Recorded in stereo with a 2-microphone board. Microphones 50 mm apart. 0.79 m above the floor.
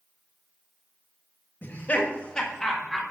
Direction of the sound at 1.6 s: 40° left (ahead or behind).